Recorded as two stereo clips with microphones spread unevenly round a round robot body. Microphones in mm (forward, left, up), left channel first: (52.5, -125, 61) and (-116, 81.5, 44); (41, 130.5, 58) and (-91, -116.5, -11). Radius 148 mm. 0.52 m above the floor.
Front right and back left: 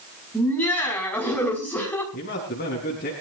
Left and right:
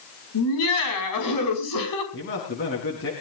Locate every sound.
0.3 s laughter: 35° left, 5.5 m
2.1 s a man speaking: 5° left, 4.5 m